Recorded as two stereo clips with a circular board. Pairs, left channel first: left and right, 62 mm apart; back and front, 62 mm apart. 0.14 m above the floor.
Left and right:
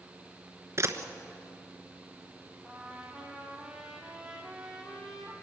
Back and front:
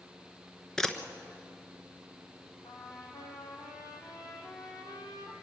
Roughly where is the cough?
No cough in this recording.